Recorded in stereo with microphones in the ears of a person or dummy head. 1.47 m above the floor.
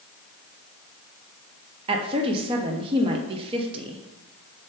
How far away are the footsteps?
I don't hear footsteps.